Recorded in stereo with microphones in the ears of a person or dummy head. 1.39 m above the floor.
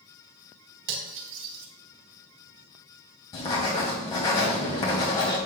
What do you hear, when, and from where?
0.9 s cutlery clinking: 65° right (ahead or behind), 2.5 m
3.3 s writing: 25° left (ahead or behind), 1.5 m